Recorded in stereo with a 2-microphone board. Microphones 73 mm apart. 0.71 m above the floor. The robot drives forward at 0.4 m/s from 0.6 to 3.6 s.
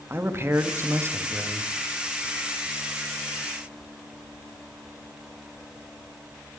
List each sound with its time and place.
0.1 s a man speaking: 35° right (ahead or behind), 0.6 m; by 1.7 s 30° right (ahead or behind), 0.6 m